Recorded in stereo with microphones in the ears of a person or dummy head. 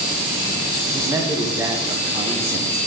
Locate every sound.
0.9 s a man speaking: 20° right (ahead or behind), 1.3 m